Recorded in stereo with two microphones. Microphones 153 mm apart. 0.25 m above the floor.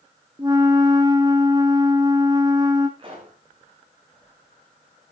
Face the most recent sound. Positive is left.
turn(degrees=-35)  # may be behind; listen again after turning